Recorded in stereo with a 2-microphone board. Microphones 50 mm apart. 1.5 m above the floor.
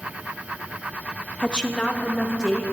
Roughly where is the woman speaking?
Centre.